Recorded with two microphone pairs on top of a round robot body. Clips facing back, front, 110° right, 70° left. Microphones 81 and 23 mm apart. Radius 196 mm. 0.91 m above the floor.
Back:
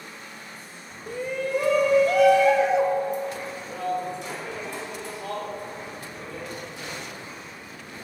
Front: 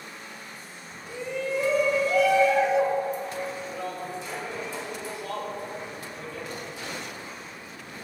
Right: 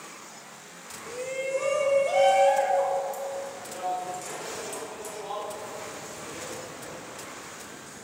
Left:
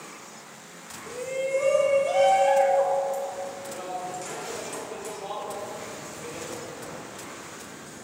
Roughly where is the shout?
Behind.